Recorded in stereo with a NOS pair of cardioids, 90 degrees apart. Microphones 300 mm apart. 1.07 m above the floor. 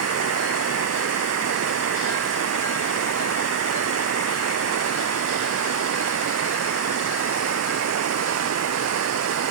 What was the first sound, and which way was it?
Running water, 55° right.